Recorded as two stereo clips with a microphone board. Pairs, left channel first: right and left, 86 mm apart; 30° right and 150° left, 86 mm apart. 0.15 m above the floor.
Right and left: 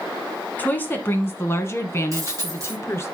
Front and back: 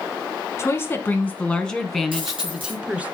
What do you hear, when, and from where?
0.6 s a woman speaking: 40° right, 1.2 m; by 3.1 s 140° right, 1.6 m
2.1 s a dropped coin: 140° left, 3 m